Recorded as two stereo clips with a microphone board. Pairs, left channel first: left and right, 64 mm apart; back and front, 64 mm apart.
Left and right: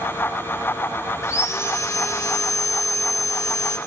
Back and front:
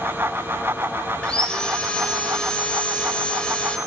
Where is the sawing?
110° left, 0.8 m.